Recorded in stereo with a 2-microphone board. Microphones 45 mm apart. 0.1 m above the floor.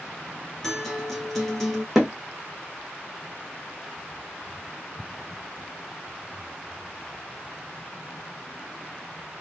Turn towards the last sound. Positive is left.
turn(degrees=-5)  # may be behind; listen again after turning